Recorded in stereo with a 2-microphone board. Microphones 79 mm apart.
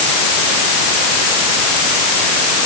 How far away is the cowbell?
No cowbell in this recording.